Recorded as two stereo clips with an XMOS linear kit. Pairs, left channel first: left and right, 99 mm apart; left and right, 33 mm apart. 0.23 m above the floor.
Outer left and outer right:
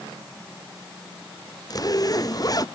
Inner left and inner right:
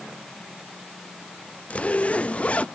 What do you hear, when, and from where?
1.7 s a zipper: 40° left (ahead or behind)